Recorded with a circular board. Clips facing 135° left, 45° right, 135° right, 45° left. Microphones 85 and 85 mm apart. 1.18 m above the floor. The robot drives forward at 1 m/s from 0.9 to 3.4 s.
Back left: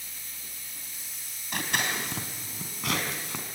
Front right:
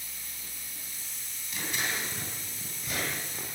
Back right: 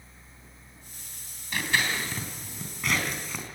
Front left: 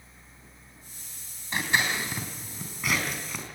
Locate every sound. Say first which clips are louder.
1.5 s scissors: back left 4 dB, front left 1 dB; 110° left, 3 m; by 3.5 s 135° left, 4 m